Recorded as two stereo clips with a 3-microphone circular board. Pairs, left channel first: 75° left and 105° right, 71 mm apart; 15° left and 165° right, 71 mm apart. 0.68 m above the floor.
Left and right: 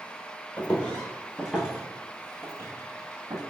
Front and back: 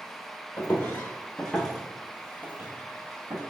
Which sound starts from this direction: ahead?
Footsteps, at 0.6 s.